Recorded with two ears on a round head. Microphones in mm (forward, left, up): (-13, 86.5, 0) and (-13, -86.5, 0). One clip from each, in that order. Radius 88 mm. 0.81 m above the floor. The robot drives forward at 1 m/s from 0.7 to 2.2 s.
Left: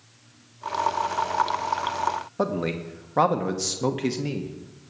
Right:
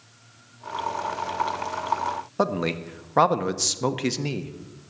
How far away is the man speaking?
About 0.7 m.